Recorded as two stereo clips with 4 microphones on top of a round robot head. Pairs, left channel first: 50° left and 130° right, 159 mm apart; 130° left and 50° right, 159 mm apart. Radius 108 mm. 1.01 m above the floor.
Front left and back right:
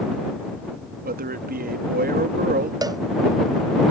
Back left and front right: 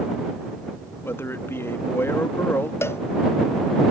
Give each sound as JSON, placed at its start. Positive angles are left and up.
{"t": 1.0, "sound": "a man speaking", "azimuth_deg": -155}
{"t": 2.8, "sound": "a cowbell", "azimuth_deg": -170}